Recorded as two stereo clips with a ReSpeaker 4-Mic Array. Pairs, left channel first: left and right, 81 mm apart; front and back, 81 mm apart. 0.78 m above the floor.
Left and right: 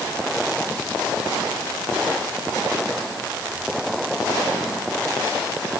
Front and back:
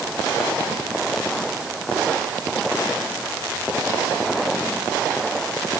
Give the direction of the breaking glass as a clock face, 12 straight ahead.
I don't hear breaking glass.